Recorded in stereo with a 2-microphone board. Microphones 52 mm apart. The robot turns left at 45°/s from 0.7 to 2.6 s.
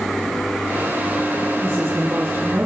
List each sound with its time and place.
1.6 s a woman speaking: 30° right, 2.5 m; by 2.7 s 75° right, 2.5 m